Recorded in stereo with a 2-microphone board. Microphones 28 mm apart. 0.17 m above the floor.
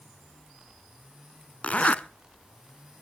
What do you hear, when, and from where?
1.6 s a zipper: 55° left (ahead or behind), 0.6 m